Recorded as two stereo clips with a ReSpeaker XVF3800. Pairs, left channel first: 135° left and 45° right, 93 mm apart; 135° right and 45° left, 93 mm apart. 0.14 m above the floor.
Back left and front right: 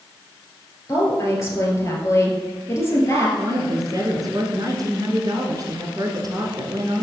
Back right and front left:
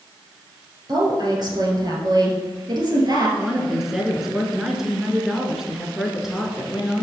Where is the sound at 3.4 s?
40° right, 1.4 m.